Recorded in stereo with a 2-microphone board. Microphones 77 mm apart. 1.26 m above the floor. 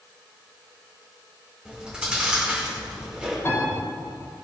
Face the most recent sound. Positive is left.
turn(degrees=35)  # may be behind; listen again after turning